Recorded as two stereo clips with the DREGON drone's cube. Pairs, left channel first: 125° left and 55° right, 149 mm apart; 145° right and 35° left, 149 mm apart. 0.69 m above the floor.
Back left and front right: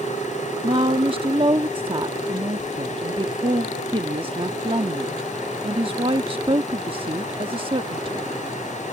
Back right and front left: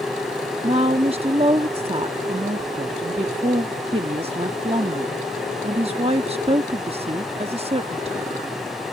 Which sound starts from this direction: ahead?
A woman speaking, at 0.6 s.